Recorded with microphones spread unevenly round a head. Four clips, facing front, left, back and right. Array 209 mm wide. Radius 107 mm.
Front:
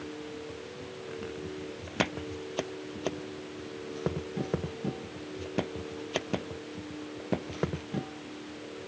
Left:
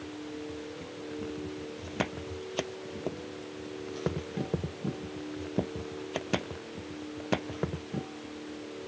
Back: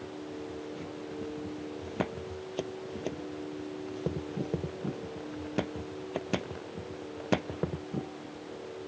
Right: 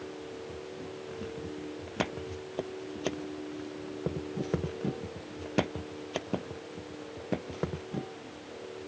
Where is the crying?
No crying in this recording.